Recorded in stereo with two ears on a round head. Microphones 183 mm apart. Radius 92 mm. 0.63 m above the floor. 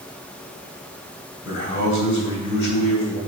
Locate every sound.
1.4 s a man speaking: 60° left (ahead or behind), 3 m